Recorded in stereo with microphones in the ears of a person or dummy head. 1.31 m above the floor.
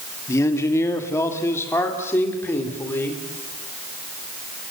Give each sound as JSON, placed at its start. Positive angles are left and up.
{"t": 0.3, "sound": "a man speaking", "side_deg": 15, "distance_m": 1.9}